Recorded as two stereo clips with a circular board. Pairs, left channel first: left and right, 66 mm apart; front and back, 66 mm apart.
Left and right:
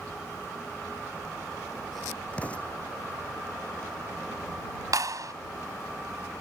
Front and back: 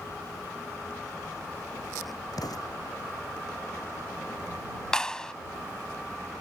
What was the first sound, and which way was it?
An explosion, 20° left.